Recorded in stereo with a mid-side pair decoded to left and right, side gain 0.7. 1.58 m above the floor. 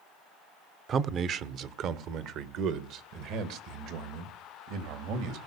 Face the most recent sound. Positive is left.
turn(degrees=-70)